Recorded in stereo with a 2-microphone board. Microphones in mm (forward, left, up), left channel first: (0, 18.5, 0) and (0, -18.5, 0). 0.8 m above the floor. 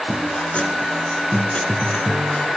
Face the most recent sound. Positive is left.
turn(degrees=30)  # may be behind; listen again after turning